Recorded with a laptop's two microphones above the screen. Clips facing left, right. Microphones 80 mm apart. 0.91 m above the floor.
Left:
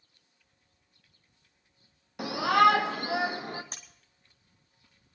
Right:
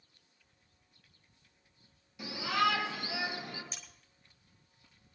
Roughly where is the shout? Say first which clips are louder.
Left 9 dB; left.